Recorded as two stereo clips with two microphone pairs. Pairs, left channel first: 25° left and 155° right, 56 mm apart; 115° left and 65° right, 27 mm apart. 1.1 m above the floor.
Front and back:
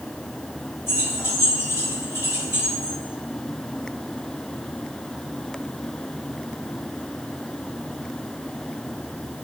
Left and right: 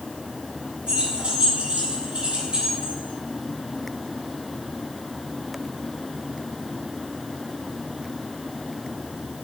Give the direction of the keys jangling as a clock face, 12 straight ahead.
12 o'clock.